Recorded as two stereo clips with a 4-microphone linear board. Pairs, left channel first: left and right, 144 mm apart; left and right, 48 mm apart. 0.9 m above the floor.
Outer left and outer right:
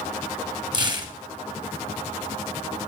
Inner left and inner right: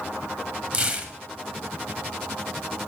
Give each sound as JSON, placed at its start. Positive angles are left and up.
{"t": 0.7, "sound": "tearing paper", "side_deg": -30, "distance_m": 0.9}